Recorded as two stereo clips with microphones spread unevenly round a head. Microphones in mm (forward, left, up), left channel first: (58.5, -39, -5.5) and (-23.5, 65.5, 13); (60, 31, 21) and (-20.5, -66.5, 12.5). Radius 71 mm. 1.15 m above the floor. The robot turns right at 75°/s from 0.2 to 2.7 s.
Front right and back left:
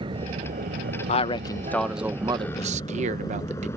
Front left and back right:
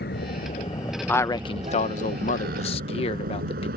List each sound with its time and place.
0.0 s a vehicle: 75° left; by 3.8 s 125° right
1.1 s a man speaking: 25° right; by 3.7 s 95° left